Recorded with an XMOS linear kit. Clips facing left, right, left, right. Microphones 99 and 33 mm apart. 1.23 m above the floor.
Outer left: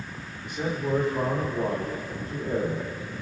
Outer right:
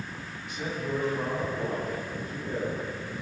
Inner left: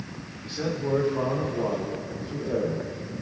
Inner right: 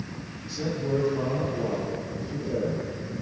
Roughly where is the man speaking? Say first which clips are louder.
Outer left 5 dB, inner left 1 dB; left.